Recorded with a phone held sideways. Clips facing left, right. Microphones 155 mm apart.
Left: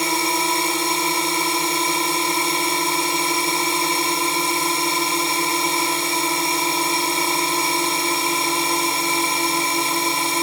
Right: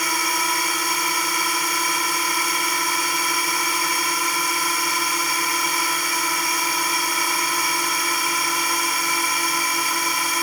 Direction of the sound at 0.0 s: 25° left (ahead or behind).